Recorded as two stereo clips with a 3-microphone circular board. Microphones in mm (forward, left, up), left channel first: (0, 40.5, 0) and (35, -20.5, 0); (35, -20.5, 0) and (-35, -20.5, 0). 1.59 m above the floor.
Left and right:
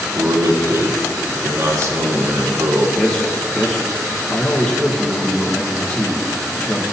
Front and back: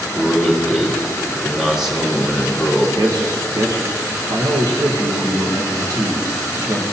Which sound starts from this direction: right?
A man speaking, at 0.1 s.